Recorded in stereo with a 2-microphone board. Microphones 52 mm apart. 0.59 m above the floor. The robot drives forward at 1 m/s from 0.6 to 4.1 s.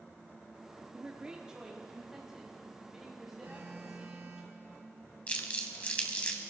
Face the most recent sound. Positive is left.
turn(degrees=25)  # may be behind; listen again after turning